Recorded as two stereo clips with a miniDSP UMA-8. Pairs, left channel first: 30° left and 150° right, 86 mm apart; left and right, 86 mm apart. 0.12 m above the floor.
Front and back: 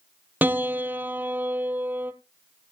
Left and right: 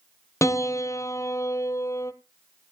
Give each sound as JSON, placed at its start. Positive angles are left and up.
{"t": 0.4, "sound": "a piano", "azimuth_deg": 145, "distance_m": 0.9}